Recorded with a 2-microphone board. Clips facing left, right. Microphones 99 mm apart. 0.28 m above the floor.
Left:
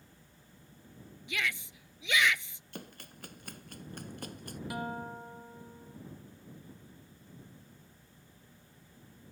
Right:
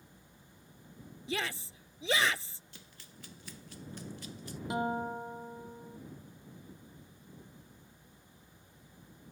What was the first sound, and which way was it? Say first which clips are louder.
A shout: even; 35° right (ahead or behind).